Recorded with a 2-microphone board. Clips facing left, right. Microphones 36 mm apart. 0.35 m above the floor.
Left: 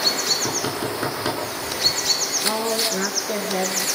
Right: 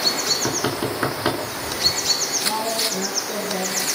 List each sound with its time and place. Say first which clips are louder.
0.3 s knocking: right 1 dB; 20° right (ahead or behind), 4 m
2.4 s a woman speaking: left 2 dB; 80° left, 5 m